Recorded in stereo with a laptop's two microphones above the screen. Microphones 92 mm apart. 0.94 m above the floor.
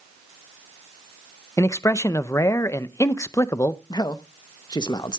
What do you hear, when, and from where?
1.6 s a man speaking: 30° left (ahead or behind), 0.5 m
3.9 s a man speaking: 50° left (ahead or behind), 0.7 m